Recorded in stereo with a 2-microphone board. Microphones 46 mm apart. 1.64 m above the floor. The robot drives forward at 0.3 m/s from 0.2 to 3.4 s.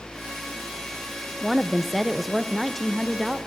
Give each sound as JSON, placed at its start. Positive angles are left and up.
{"t": 1.4, "sound": "a woman speaking", "side_deg": 5, "distance_m": 0.8}